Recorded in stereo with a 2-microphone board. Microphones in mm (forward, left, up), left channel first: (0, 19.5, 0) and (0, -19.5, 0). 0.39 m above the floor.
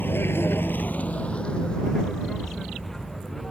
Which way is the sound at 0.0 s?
60° left (ahead or behind).